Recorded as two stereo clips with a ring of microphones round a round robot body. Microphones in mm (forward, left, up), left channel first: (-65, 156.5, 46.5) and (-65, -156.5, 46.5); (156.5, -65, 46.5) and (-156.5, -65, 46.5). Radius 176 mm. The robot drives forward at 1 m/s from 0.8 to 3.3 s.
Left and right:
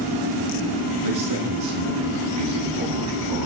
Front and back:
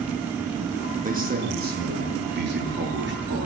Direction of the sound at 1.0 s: 115° right.